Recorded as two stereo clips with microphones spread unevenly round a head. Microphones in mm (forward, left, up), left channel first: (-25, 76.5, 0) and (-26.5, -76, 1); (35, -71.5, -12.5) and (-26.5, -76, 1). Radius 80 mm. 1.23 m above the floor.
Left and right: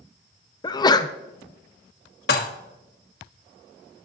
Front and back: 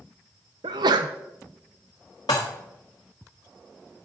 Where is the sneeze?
155° left, 0.5 m.